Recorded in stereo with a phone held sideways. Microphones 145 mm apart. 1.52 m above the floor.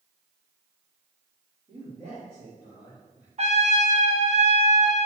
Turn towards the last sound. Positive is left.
turn(degrees=-50)  # may be behind; listen again after turning